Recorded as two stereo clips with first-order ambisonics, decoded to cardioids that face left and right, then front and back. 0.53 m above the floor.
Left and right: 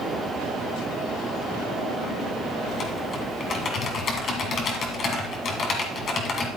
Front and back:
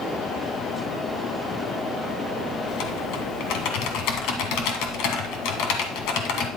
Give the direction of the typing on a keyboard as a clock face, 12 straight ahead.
11 o'clock.